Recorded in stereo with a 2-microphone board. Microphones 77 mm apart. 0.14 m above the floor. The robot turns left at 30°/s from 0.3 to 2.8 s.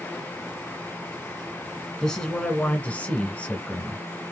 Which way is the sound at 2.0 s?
10° left (ahead or behind).